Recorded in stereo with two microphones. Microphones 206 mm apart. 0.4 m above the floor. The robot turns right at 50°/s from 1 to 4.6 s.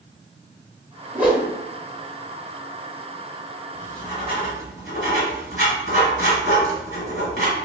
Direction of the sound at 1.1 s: 10° right (ahead or behind).